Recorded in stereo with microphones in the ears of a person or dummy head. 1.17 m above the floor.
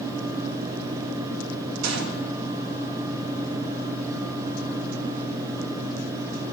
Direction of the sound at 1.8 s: 85° right.